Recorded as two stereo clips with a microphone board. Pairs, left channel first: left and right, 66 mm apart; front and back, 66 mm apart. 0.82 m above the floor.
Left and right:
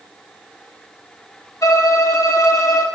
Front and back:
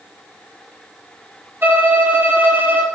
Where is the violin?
120° left, 1.5 m.